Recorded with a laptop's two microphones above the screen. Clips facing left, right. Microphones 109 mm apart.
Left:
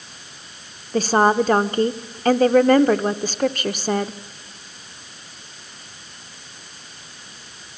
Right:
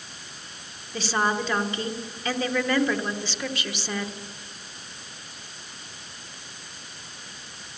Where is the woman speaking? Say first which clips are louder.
Left 9 dB; 50° left (ahead or behind), 0.8 m.